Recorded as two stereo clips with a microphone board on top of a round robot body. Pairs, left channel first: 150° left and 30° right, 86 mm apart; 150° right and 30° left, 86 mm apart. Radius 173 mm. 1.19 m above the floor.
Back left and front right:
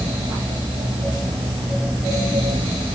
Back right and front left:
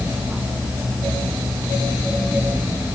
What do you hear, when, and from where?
Only background noise.